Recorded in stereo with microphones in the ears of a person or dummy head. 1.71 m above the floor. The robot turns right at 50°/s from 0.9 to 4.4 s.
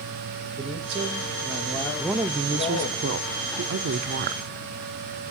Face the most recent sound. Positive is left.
turn(degrees=-55)